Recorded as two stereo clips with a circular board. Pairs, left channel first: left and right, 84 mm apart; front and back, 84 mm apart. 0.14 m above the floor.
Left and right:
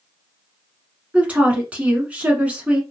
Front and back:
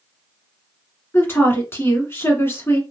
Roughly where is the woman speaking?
Ahead right.